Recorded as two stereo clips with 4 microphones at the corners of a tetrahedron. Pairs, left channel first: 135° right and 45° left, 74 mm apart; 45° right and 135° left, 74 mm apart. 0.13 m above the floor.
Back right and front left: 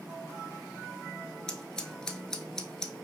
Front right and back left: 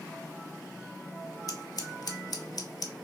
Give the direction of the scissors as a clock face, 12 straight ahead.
2 o'clock.